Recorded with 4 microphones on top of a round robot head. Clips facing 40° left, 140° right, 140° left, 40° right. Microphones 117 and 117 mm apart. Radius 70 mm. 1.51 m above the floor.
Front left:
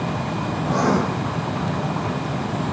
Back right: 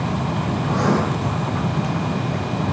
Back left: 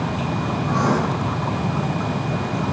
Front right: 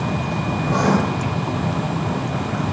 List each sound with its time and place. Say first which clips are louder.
0.7 s writing: front left 1 dB, front right 2 dB; 10° right, 5 m